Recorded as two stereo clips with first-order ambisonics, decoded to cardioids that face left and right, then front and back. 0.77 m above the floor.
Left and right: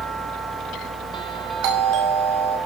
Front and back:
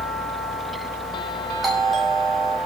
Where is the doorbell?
95° right, 5.5 m.